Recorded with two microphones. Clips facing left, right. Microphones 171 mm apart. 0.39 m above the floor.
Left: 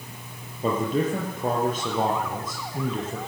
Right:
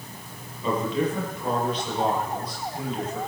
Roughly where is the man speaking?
Left.